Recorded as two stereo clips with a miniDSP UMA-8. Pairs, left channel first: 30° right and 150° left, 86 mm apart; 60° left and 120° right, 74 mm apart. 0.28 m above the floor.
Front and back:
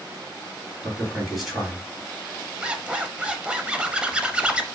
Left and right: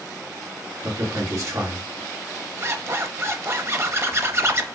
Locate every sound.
0.8 s a man speaking: 125° right, 1.9 m
2.6 s a zipper: 140° right, 0.5 m